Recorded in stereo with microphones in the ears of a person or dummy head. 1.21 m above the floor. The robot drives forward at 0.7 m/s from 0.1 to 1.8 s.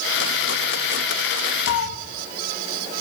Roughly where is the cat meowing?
Left.